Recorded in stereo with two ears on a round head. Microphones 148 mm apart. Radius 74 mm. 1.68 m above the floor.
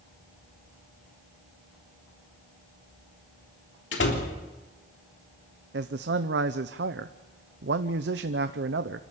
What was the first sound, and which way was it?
A door slam, 80° left.